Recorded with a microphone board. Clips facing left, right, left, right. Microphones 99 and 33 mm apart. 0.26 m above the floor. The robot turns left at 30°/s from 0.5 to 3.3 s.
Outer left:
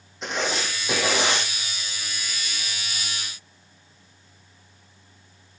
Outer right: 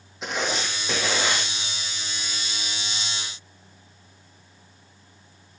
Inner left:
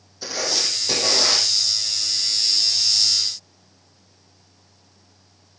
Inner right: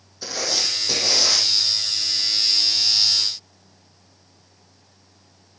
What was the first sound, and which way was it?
Writing, 5° right (ahead or behind).